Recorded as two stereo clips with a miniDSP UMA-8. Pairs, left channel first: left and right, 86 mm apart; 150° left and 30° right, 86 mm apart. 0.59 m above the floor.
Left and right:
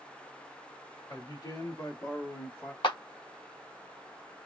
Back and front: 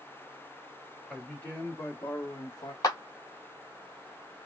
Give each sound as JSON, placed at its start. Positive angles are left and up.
{"t": 1.1, "sound": "a man speaking", "azimuth_deg": 70, "distance_m": 1.8}
{"t": 2.8, "sound": "a clap", "azimuth_deg": 105, "distance_m": 0.8}